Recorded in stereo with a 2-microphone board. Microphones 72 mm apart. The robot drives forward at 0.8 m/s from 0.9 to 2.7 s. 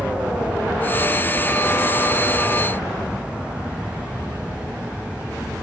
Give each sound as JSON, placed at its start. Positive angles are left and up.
{"t": 0.0, "sound": "an aircraft", "side_deg": -10}